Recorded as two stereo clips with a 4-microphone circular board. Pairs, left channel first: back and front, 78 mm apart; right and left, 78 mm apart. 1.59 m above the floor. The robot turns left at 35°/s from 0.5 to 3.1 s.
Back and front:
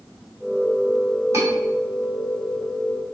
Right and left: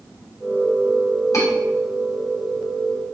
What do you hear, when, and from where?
1.3 s cutlery clinking: 50° right, 2.5 m